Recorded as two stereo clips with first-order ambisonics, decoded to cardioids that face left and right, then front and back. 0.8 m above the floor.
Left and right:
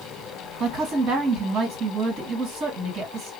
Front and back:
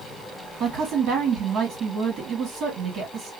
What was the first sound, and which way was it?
A woman speaking, 135° right.